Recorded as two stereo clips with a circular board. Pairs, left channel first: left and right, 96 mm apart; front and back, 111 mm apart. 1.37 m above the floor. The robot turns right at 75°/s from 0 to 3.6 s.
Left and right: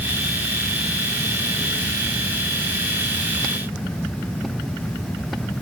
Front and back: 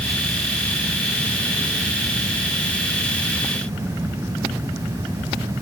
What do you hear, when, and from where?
Only background noise.